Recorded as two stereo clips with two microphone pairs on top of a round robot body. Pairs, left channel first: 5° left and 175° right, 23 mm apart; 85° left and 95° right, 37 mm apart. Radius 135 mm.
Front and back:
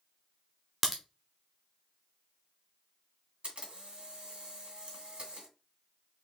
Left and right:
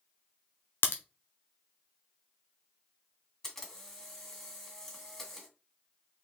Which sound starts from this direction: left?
A crack, at 0.8 s.